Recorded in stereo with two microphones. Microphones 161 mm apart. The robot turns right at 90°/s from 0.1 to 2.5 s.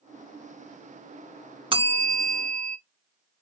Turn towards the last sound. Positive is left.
turn(degrees=-70)